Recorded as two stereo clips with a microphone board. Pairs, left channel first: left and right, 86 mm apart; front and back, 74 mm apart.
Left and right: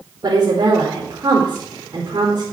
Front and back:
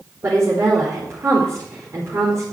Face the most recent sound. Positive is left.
turn(degrees=-130)